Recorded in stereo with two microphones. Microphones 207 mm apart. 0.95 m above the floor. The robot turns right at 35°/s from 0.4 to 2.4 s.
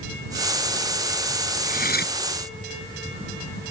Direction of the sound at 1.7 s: 40° left (ahead or behind).